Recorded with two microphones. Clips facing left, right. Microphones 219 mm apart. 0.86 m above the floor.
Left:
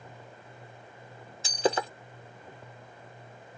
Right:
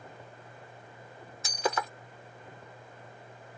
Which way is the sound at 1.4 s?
25° left (ahead or behind).